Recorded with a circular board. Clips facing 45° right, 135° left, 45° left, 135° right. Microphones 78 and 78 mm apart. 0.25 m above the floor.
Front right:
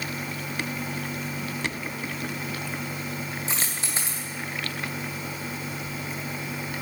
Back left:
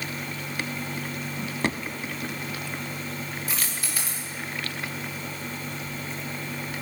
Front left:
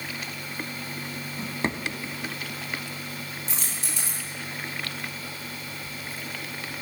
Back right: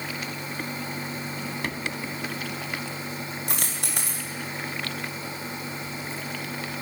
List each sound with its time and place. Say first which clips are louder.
1.4 s a drawer: back left 3 dB, front left 6 dB; 100° left, 1.0 m
3.5 s a dropped coin: front right 1 dB, back right 3 dB; 110° right, 3.5 m